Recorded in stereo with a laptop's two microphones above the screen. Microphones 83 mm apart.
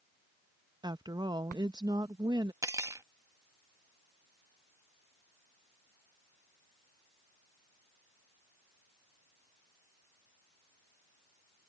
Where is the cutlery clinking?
40° right (ahead or behind).